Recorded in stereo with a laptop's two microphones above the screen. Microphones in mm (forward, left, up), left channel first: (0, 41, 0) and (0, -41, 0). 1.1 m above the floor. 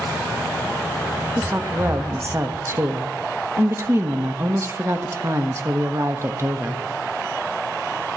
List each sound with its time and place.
1.4 s a woman speaking: 35° right (ahead or behind), 1.0 m